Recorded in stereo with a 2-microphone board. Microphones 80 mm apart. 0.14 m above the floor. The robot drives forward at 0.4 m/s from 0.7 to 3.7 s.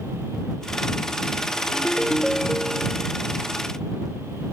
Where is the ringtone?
Centre (ahead or behind).